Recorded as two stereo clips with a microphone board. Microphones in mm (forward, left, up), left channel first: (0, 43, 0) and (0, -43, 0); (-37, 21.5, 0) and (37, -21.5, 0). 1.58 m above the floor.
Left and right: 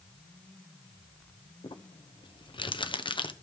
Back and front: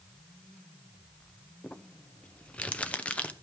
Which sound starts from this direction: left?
Crumpling, at 1.6 s.